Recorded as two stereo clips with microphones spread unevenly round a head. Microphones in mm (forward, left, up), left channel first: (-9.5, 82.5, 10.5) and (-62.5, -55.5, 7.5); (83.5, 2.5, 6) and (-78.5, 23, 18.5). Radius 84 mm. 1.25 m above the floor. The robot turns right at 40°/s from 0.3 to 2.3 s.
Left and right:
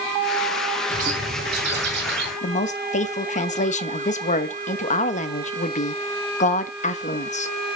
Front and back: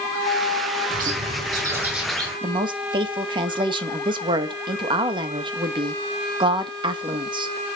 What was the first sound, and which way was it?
A bird, 145° right.